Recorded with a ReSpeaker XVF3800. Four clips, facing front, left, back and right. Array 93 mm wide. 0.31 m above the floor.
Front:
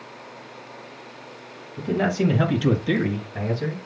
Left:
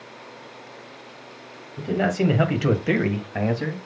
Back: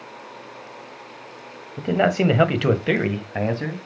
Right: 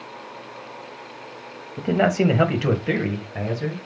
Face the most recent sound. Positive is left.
turn(degrees=135)